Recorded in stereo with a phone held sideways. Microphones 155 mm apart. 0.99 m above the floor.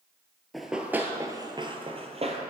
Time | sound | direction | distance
0.5 | running footsteps | centre (ahead or behind) | 1.0 m